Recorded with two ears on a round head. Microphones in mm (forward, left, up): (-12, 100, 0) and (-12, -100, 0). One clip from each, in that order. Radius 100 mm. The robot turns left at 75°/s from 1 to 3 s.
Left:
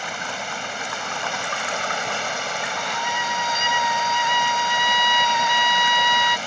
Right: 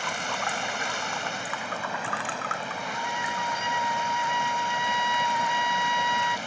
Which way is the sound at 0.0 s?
175° left.